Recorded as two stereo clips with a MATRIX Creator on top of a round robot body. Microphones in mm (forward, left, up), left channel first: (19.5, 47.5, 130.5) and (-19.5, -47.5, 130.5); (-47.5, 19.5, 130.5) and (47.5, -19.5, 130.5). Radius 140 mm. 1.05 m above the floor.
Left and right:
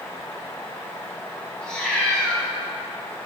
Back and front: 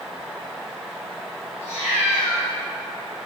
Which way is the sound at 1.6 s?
150° left.